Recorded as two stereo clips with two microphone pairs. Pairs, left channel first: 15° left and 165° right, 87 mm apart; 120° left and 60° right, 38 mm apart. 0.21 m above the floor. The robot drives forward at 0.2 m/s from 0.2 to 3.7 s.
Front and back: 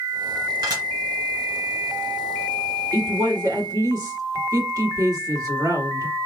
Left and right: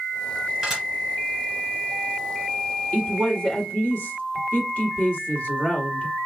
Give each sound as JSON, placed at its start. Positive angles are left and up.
{"t": 0.6, "sound": "dishes clattering", "azimuth_deg": -145, "distance_m": 1.9}
{"t": 2.9, "sound": "a woman speaking", "azimuth_deg": 170, "distance_m": 2.0}